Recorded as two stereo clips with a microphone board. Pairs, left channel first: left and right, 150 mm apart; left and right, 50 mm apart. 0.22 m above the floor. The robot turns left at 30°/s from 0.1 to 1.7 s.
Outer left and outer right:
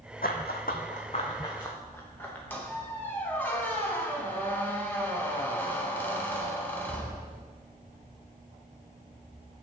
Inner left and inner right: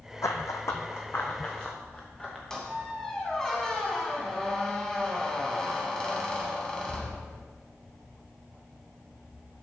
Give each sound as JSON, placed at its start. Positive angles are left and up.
{"t": 0.2, "sound": "running footsteps", "side_deg": 70, "distance_m": 0.7}
{"t": 2.5, "sound": "a squeak", "side_deg": 10, "distance_m": 1.0}